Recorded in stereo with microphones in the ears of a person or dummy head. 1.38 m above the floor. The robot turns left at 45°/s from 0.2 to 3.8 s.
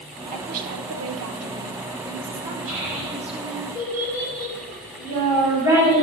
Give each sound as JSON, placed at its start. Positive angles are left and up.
{"t": 0.3, "sound": "a woman speaking", "azimuth_deg": -35, "distance_m": 1.0}
{"t": 2.7, "sound": "a child speaking", "side_deg": -20, "distance_m": 3.5}